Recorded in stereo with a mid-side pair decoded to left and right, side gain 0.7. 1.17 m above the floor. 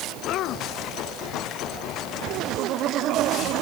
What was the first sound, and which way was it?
Only background noise.